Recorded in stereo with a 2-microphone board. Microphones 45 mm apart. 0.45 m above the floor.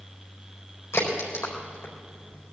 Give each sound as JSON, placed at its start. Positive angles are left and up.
{"t": 0.9, "sound": "a crack", "side_deg": 85, "distance_m": 4.0}